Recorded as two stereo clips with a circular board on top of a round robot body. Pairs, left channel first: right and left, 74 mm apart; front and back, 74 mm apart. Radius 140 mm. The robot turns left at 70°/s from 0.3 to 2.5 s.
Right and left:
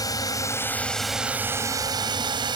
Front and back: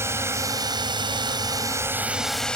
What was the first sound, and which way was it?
A drone, 125° right.